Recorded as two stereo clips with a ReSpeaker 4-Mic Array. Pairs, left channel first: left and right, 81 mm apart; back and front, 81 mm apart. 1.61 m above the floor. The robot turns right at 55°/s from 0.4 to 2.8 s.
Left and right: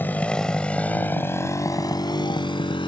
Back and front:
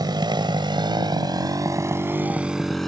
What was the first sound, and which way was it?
A motorcycle, 25° left.